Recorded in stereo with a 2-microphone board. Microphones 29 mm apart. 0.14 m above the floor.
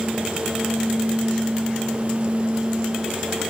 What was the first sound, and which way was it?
Only background noise.